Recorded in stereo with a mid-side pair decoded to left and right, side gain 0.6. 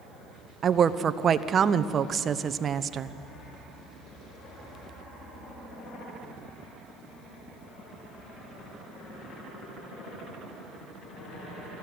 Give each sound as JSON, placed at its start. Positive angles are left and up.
{"t": 0.6, "sound": "a woman speaking", "azimuth_deg": -35, "distance_m": 0.9}